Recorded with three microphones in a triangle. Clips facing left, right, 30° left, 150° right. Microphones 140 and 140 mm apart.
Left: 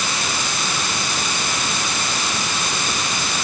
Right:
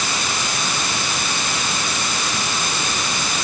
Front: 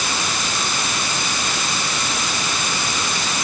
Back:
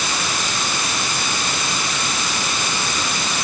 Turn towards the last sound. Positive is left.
No sound to turn to.